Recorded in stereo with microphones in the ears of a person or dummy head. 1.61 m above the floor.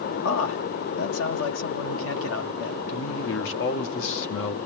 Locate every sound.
0.2 s a man speaking: 75° left (ahead or behind), 1.9 m
2.9 s a man speaking: 75° left (ahead or behind), 1.9 m